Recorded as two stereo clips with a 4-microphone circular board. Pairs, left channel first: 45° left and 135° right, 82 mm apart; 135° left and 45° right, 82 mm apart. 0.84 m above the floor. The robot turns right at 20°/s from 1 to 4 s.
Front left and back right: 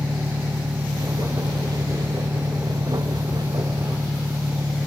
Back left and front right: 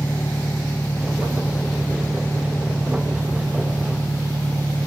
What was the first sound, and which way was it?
An engine running, 145° right.